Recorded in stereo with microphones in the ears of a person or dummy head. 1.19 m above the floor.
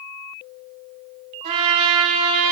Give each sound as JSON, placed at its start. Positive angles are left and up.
{"t": 1.4, "sound": "a trumpet", "side_deg": -30, "distance_m": 4.0}